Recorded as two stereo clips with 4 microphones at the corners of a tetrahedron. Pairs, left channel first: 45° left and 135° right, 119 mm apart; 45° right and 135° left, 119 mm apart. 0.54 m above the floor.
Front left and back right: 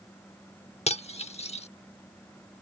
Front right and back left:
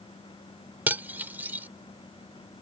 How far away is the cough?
I don't hear a cough.